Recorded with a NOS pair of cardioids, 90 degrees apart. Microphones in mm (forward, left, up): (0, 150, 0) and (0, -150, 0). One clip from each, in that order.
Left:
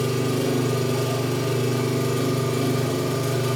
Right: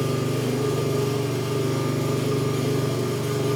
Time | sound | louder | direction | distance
0.0 | an engine running | left 2 dB | 60° left | 3.5 m